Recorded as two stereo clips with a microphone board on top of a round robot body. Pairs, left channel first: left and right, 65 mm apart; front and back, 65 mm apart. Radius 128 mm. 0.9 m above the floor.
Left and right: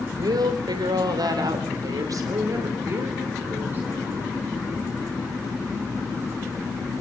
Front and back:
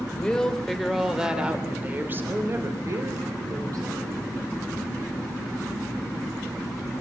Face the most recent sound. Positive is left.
turn(degrees=-150)